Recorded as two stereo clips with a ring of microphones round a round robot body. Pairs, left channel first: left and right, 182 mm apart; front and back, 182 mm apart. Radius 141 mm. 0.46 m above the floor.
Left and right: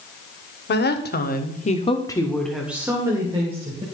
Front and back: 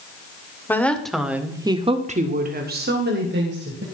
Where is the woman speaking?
80° left, 2 m; by 3.8 s 150° right, 3 m.